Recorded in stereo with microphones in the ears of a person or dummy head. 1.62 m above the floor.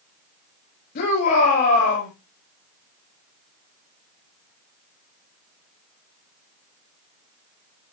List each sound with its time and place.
0.9 s a shout: 55° left (ahead or behind), 7.5 m